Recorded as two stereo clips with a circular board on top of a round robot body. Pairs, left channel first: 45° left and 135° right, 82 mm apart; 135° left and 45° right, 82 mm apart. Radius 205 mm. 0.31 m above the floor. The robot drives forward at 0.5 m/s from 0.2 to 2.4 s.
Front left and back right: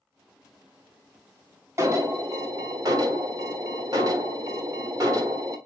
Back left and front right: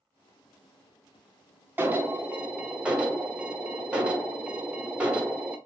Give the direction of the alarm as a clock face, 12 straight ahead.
3 o'clock.